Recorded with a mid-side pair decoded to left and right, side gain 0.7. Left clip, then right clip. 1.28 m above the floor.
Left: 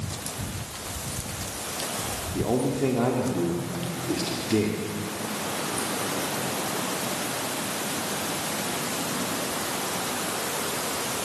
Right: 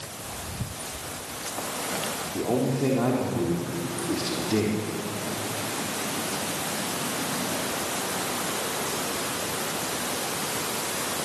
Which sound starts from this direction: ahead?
A man speaking, at 2.3 s.